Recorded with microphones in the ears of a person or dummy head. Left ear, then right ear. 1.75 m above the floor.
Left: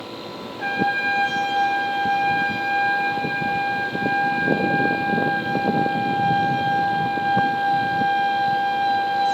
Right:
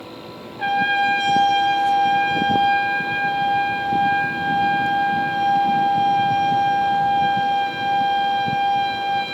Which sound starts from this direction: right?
A trumpet, at 0.6 s.